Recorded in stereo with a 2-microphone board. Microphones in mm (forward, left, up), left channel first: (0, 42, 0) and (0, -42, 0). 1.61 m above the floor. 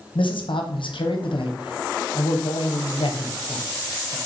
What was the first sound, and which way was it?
A man speaking, 80° left.